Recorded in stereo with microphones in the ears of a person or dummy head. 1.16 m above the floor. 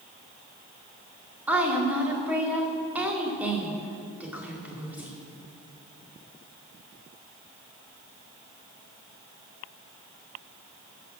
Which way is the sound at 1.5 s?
5° right (ahead or behind).